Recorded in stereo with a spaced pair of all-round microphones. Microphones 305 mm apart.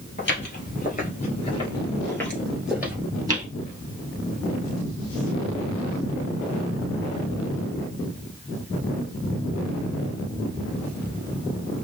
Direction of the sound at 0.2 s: 40° left (ahead or behind).